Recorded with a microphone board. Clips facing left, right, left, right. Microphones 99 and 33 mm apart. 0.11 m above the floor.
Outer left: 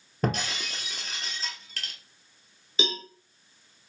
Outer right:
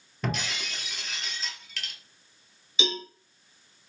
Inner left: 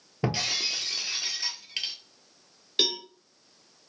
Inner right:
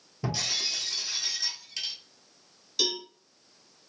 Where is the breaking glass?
40° left (ahead or behind), 0.9 m.